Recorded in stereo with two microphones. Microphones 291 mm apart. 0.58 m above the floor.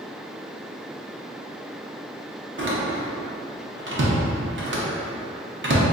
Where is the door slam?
45° right (ahead or behind), 0.5 m.